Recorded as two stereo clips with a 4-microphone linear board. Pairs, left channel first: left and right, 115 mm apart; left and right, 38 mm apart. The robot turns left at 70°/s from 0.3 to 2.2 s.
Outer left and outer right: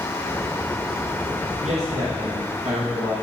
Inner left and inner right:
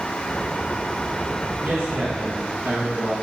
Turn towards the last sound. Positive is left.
turn(degrees=-105)